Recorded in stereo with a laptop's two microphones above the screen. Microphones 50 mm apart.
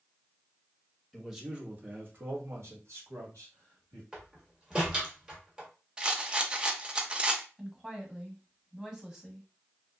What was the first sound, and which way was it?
A man speaking, 5° right (ahead or behind).